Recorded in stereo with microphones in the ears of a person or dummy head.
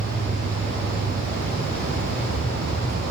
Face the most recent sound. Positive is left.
turn(degrees=-40)  # may be behind; listen again after turning